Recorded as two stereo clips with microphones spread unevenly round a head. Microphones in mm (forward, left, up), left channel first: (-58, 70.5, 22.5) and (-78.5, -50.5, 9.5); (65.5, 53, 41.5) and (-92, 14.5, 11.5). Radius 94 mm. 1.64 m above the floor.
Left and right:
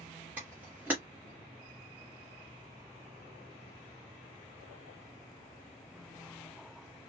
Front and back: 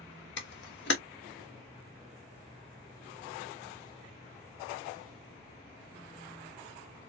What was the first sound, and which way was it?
A camera shutter, 15° right.